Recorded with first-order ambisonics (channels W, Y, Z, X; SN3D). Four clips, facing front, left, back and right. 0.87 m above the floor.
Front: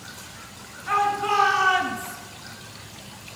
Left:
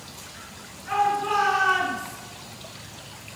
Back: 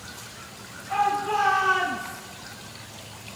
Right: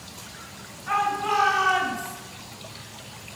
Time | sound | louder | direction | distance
0.9 | a shout | left 1 dB, front 2 dB | 30° right | 7 m